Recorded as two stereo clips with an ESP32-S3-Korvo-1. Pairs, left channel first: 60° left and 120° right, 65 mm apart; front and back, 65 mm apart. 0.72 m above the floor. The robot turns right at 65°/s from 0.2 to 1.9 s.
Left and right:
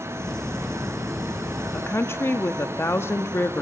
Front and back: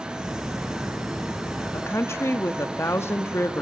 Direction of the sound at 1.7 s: 15° left.